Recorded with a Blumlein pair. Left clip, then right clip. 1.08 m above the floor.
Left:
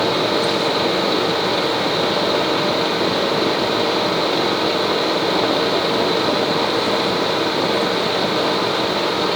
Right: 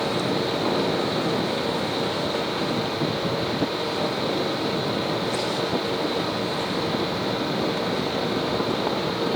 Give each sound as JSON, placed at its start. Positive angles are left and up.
{"t": 0.0, "sound": "a fan", "azimuth_deg": 25, "distance_m": 1.3}